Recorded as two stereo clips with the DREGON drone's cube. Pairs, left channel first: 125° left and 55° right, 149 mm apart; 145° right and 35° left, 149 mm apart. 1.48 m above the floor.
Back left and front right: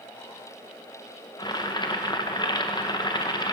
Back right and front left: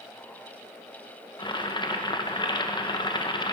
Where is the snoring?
No snoring in this recording.